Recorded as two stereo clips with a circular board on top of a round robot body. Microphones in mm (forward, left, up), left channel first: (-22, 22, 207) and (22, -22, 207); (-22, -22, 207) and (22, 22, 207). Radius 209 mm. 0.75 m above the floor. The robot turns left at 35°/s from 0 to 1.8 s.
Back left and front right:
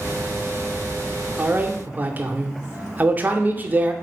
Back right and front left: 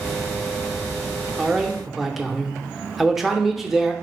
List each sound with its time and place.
1.4 s a man speaking: 25° right, 0.8 m; by 3.9 s 40° right, 0.8 m